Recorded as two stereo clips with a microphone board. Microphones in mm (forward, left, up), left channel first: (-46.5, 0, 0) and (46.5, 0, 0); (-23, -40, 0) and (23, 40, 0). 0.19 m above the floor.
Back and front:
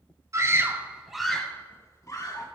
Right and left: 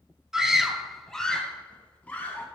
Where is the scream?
20° right, 1.3 m; by 2.5 s 175° left, 1.4 m.